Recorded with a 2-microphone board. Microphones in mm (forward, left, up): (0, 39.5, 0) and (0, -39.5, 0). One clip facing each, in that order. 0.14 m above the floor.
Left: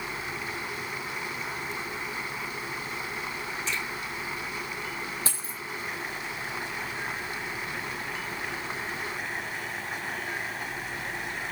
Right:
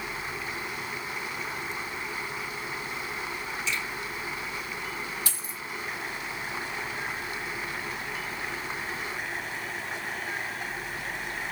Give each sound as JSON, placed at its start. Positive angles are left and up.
{"t": 3.7, "sound": "a finger snap", "side_deg": 40, "distance_m": 4.0}
{"t": 5.3, "sound": "a dropped coin", "side_deg": 35, "distance_m": 1.1}